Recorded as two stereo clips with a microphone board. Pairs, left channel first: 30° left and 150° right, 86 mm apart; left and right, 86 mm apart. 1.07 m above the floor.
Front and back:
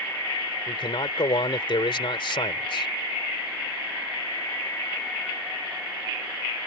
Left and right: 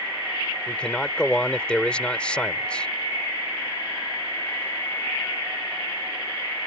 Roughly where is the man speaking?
Ahead.